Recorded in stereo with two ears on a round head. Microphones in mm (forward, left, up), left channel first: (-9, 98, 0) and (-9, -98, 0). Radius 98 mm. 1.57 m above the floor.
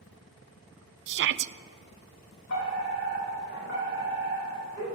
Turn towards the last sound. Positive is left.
turn(degrees=60)  # may be behind; listen again after turning